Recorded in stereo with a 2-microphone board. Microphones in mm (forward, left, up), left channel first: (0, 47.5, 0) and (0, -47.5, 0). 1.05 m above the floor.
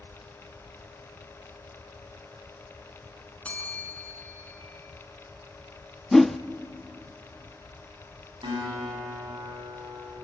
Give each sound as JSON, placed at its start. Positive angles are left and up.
{"t": 3.5, "sound": "a bell", "side_deg": 15, "distance_m": 4.5}
{"t": 6.1, "sound": "a whoosh", "side_deg": 0, "distance_m": 0.5}
{"t": 8.4, "sound": "a guitar", "side_deg": -55, "distance_m": 9.0}